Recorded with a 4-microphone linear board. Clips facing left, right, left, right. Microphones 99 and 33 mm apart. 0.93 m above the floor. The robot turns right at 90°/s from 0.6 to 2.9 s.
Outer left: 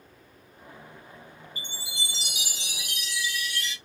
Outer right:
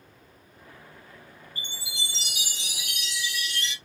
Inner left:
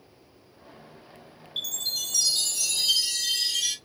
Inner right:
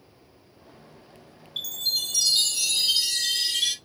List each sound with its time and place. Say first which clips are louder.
1.6 s a chime: even, inner right 3 dB; 170° left, 1.5 m; by 3.8 s 70° right, 1.5 m